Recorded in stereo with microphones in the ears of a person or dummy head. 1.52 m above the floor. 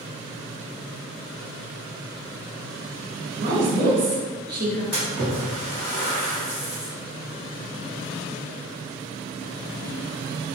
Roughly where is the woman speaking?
Right.